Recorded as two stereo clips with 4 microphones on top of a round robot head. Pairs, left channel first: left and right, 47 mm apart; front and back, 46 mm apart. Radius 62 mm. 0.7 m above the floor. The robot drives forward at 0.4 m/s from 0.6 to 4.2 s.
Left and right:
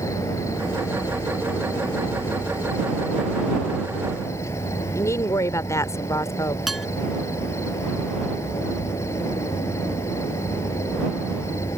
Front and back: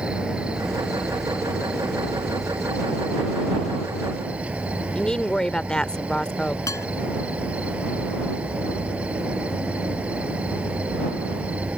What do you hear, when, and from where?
0.0 s an insect: 115° left; by 11.8 s 120° left
5.0 s a woman speaking: 75° left
6.7 s dishes clattering: 5° right